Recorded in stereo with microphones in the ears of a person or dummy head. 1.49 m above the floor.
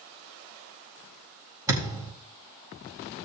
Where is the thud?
20° right (ahead or behind), 4 m.